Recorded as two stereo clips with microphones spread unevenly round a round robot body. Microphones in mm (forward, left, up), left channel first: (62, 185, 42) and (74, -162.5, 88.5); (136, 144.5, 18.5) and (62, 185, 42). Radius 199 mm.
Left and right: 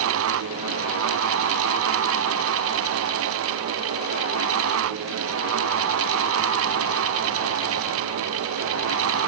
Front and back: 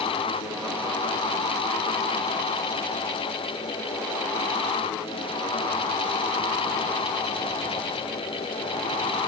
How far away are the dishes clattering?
I don't hear dishes clattering.